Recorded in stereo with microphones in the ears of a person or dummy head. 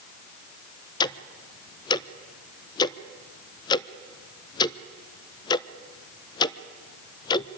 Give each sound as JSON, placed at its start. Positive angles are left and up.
{"t": 1.0, "sound": "ticking", "side_deg": 25, "distance_m": 0.5}